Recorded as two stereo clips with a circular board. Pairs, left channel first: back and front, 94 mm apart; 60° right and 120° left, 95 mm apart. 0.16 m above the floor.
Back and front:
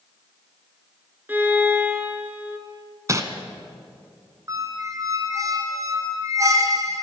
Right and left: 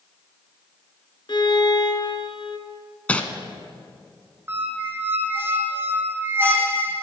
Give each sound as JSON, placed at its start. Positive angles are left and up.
{"t": 1.3, "sound": "a violin", "azimuth_deg": -65, "distance_m": 1.3}
{"t": 3.1, "sound": "crumpling", "azimuth_deg": 5, "distance_m": 1.1}
{"t": 4.5, "sound": "a squeak", "azimuth_deg": 55, "distance_m": 1.1}